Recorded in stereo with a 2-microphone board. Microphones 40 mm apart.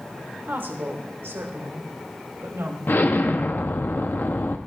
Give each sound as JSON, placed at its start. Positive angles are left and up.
{"t": 0.4, "sound": "a woman speaking", "side_deg": -55, "distance_m": 1.9}
{"t": 2.9, "sound": "an explosion", "side_deg": 55, "distance_m": 0.9}